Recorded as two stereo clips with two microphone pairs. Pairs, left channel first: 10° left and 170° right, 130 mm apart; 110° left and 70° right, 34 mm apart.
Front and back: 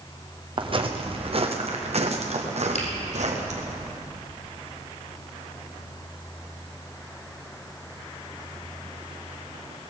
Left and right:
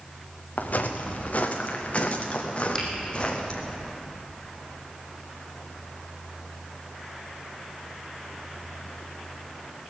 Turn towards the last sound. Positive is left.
turn(degrees=35)